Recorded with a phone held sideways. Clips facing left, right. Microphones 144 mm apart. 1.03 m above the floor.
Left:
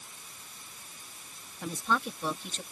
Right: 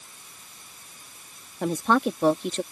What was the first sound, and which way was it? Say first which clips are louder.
A woman speaking: right 9 dB; 70° right (ahead or behind).